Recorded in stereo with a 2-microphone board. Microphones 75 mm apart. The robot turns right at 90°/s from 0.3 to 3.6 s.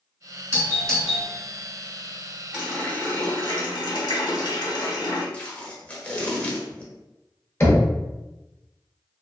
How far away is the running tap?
About 1.4 m.